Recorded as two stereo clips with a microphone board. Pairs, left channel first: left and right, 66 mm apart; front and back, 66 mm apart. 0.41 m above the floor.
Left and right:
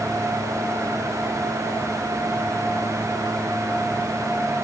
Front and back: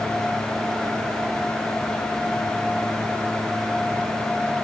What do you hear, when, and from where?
Only background noise.